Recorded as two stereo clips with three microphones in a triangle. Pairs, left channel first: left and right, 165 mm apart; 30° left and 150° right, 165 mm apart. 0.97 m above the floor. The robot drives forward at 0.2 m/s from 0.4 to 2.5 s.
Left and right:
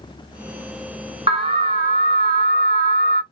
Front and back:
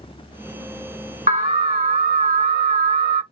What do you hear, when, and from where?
1.3 s an alarm: 135° right, 1.8 m; by 3.2 s 140° right, 2.0 m